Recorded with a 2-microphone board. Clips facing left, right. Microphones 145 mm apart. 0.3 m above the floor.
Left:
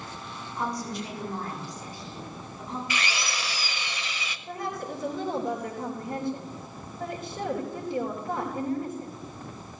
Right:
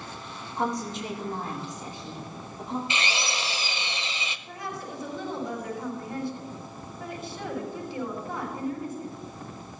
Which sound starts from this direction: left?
A woman speaking, at 4.5 s.